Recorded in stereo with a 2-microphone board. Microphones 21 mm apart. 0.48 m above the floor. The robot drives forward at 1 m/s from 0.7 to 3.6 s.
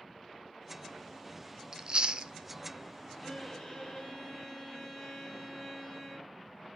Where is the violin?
35° left (ahead or behind), 3 m.